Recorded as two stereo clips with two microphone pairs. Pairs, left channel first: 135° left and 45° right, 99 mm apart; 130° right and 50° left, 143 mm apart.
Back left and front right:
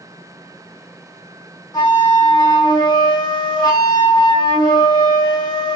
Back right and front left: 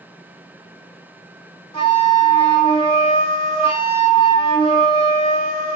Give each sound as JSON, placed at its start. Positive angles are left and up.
{"t": 1.7, "sound": "a flute", "azimuth_deg": -175, "distance_m": 2.0}